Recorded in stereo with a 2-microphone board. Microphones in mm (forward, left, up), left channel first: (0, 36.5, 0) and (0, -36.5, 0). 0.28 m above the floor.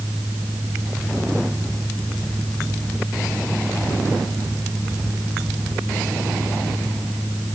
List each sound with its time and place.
Only background noise.